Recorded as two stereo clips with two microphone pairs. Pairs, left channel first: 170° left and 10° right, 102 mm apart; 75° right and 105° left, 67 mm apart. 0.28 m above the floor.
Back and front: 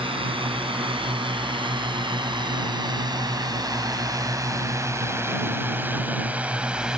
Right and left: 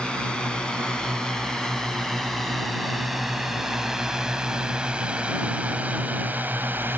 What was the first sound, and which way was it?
A drone, 5° right.